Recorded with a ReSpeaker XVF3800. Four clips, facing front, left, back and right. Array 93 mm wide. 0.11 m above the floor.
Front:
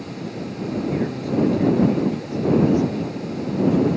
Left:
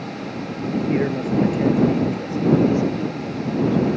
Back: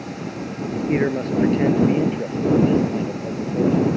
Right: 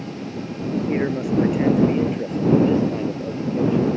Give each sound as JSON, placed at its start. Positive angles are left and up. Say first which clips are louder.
{"t": 0.9, "sound": "a man speaking", "louder": "left 1 dB, back 7 dB", "azimuth_deg": -170}